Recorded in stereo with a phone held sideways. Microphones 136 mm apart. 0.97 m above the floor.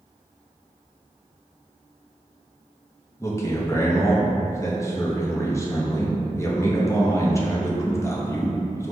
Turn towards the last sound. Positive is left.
turn(degrees=20)  # may be behind; listen again after turning